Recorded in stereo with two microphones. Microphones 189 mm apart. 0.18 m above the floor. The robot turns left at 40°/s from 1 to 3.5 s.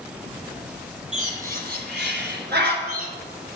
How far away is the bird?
About 1.4 m.